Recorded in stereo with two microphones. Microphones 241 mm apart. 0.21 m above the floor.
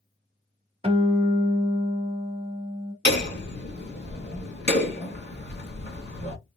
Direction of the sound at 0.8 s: 25° right (ahead or behind).